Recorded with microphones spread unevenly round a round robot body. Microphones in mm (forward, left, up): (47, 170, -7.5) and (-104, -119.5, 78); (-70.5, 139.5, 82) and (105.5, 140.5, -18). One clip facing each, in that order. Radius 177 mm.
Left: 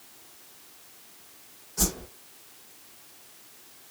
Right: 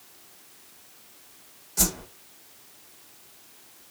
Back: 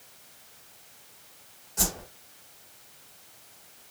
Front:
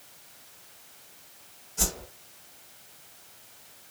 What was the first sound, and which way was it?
A whoosh, 155° right.